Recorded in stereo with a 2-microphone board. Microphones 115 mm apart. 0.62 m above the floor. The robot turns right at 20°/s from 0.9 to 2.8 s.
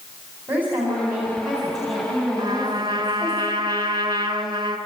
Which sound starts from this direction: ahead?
A woman speaking, at 0.5 s.